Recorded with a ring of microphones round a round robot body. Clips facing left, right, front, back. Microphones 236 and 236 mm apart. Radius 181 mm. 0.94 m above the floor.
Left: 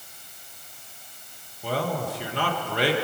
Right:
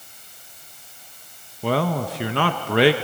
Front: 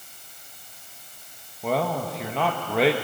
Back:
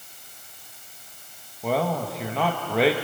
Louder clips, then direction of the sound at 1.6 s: Right 5 dB, back 1 dB; 90° right.